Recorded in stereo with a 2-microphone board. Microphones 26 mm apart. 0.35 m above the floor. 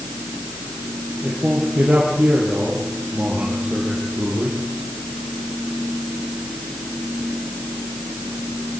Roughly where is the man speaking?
Right.